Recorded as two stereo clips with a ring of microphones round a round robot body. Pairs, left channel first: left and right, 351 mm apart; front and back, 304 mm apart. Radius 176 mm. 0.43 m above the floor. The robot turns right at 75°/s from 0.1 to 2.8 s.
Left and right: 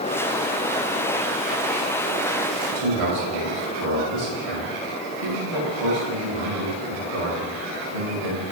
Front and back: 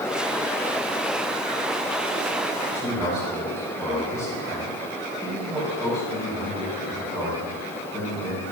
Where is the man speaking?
115° right, 2.5 m; by 8.4 s 105° right, 2.5 m.